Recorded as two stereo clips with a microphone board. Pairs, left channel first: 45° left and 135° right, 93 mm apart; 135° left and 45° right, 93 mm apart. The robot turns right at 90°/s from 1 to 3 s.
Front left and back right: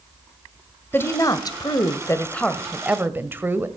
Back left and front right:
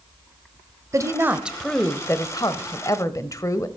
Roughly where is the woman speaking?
Ahead.